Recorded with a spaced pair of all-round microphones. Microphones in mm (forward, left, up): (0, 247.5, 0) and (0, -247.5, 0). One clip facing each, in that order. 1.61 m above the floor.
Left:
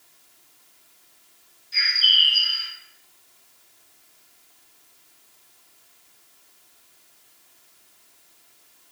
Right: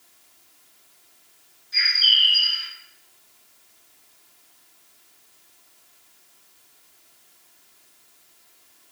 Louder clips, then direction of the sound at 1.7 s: Even; 50° left (ahead or behind).